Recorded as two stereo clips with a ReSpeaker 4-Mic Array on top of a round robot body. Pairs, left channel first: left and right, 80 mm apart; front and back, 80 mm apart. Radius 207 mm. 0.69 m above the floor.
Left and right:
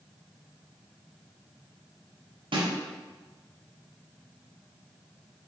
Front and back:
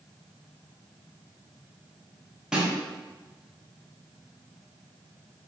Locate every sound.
2.5 s a snare drum: 100° right, 0.7 m